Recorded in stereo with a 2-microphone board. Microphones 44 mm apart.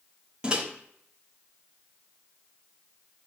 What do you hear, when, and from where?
0.4 s a microwave: 20° right (ahead or behind), 1.2 m